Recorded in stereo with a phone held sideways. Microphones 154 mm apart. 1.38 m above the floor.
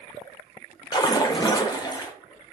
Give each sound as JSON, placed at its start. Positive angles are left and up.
{"t": 0.9, "sound": "a splash", "side_deg": 25, "distance_m": 0.6}